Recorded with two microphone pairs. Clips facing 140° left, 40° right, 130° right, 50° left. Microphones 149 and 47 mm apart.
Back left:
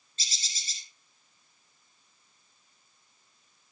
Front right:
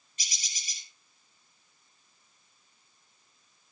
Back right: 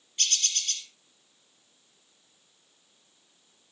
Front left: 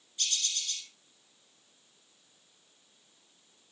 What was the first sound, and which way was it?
A bird, 115° right.